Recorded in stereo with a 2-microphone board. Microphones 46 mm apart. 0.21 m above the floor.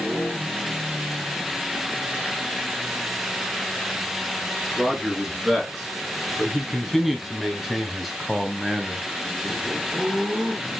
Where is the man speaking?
5° right (ahead or behind), 3.5 m.